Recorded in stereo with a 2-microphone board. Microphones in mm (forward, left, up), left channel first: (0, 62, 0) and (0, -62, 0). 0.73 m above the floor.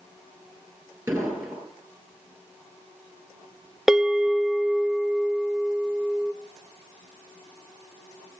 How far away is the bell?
About 0.5 m.